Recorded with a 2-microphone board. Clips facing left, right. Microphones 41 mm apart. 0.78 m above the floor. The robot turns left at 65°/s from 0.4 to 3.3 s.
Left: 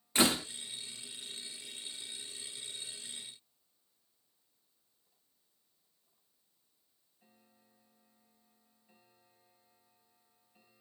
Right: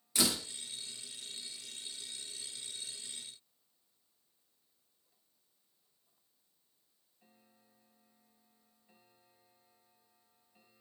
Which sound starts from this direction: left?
A door slam, at 0.1 s.